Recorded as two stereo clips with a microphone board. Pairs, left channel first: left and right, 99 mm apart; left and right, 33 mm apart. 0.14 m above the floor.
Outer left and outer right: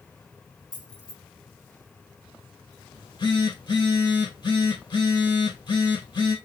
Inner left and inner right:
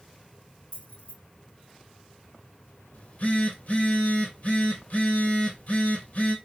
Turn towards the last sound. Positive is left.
turn(degrees=55)  # may be behind; listen again after turning